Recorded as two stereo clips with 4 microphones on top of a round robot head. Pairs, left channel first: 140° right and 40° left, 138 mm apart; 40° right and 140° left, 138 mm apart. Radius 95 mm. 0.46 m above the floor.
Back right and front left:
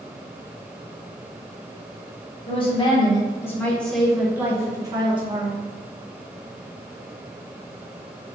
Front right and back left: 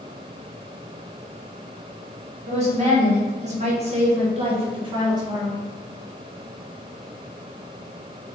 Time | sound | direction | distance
2.5 | a woman speaking | 175° left | 1.7 m